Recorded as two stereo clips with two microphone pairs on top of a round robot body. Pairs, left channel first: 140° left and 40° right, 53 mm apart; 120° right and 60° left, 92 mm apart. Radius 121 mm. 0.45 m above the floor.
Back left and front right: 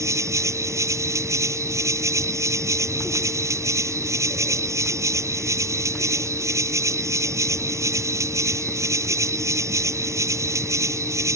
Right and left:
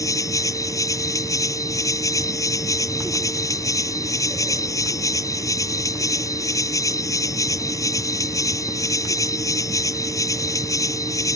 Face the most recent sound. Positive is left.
turn(degrees=-65)